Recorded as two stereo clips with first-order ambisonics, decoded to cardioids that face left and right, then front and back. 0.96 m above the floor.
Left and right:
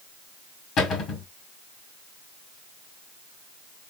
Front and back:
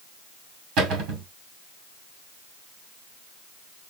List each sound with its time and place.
0.8 s a cupboard door: 140° left, 2 m